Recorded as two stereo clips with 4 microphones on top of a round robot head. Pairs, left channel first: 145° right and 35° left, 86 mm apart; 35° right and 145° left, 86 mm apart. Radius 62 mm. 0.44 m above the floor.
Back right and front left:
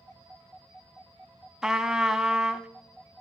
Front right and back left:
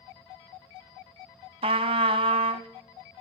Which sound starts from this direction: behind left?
A trumpet, at 1.6 s.